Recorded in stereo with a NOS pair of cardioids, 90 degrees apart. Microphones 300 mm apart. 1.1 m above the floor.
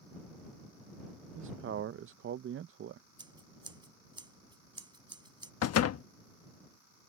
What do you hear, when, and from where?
1.4 s a man speaking: 45° right
3.2 s scissors: 15° right
5.6 s a door slam: 55° left